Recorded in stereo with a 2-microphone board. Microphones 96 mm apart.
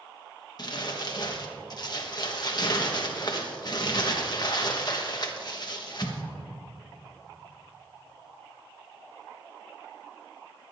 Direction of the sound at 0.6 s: 45° left (ahead or behind).